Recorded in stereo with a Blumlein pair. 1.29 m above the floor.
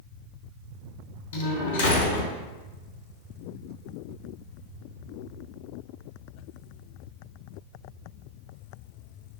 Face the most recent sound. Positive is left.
turn(degrees=60)